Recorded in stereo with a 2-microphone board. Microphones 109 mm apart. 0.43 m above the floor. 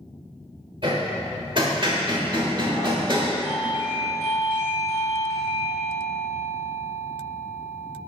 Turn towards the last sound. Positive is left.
turn(degrees=-55)  # may be behind; listen again after turning